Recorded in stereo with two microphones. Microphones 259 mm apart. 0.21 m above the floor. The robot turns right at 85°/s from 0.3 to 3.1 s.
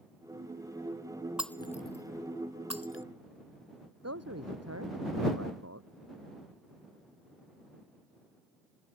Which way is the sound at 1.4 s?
5° right (ahead or behind).